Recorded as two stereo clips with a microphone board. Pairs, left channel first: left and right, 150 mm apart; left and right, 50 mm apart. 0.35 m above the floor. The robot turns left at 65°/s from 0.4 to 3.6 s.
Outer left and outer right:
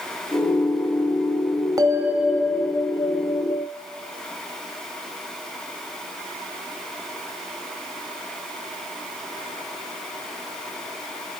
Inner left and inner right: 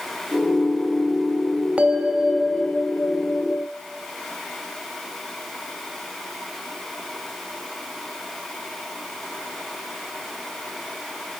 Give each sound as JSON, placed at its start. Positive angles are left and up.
{"t": 1.8, "sound": "a bell", "azimuth_deg": -150, "distance_m": 1.9}